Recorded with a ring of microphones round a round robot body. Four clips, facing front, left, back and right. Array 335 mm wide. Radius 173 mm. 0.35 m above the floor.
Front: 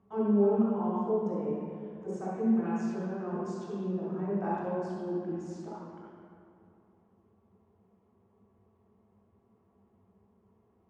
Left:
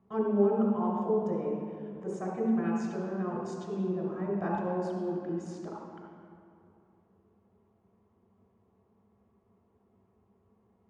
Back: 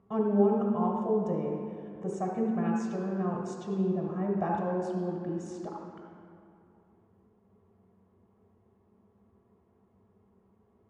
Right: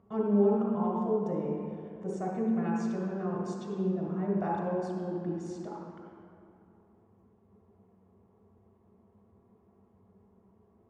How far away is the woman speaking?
About 2 m.